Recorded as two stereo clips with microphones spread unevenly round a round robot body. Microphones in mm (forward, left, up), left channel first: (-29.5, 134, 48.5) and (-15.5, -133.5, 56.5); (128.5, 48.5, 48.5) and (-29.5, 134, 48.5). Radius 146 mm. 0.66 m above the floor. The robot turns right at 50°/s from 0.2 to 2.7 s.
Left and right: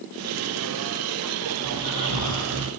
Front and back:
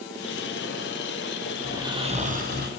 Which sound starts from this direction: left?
Snoring, at 1.6 s.